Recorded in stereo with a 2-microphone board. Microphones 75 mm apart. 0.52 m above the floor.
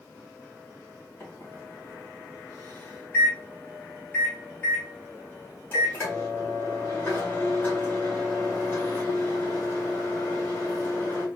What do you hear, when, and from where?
1.2 s a microwave: 25° left (ahead or behind), 3 m